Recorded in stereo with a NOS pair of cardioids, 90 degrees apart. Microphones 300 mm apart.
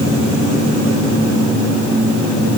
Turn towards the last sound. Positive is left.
No sound to turn to.